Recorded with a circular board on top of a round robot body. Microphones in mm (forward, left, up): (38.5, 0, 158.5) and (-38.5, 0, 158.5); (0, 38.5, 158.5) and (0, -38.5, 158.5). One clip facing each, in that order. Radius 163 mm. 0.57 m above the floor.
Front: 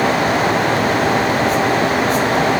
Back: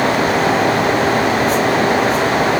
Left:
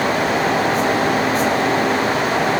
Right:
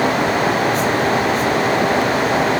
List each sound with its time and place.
Only background noise.